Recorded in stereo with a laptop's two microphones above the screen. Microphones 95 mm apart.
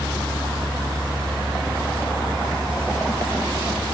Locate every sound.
0.0 s a fan: 60° right (ahead or behind)